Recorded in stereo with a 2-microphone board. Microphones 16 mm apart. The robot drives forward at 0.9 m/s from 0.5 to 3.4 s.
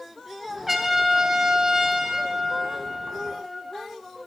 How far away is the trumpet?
About 1.0 m.